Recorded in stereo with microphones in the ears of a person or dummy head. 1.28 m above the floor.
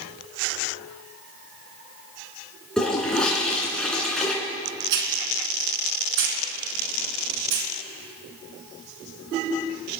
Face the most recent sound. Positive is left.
turn(degrees=-65)  # may be behind; listen again after turning